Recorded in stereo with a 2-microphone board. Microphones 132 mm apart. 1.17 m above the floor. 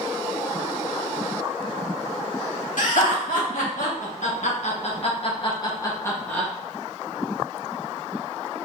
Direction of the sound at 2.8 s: 75° left (ahead or behind).